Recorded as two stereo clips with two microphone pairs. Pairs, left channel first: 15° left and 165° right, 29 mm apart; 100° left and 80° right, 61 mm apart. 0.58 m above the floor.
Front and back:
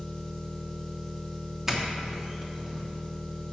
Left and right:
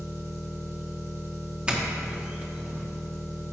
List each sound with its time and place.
0.0 s an engine running: 55° right, 2 m
1.7 s a doorbell: 120° right, 1.1 m